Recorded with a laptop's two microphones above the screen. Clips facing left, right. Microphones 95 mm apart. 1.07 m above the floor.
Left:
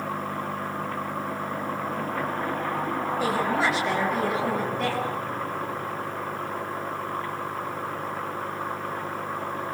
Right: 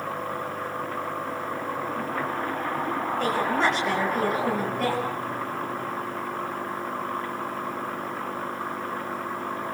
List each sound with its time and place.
3.2 s a woman speaking: 10° left (ahead or behind), 7 m; by 5.1 s 5° right (ahead or behind), 8.5 m